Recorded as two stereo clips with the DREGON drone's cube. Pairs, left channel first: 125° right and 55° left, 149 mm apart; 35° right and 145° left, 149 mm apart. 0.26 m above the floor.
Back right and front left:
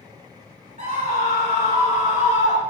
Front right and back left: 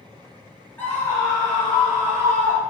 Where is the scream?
40° left, 2.5 m; by 2.6 s straight ahead, 3 m.